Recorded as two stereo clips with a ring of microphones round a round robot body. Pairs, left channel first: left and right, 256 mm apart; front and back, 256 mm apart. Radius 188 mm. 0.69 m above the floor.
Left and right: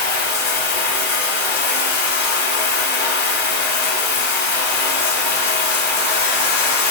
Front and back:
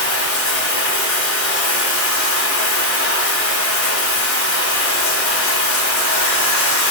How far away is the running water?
About 1.2 m.